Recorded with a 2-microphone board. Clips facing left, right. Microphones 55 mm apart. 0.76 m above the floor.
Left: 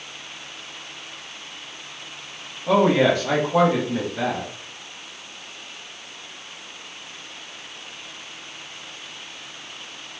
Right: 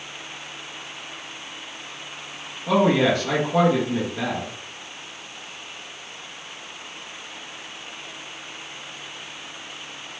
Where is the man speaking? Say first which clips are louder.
Left 1 dB; 10° left (ahead or behind), 0.9 m.